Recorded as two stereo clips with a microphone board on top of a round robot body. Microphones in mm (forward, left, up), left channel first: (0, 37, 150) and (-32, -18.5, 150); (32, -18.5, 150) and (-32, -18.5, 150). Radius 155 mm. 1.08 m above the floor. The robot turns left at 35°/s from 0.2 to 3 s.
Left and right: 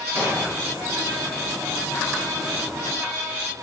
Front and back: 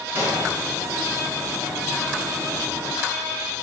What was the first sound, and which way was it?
An explosion, 135° right.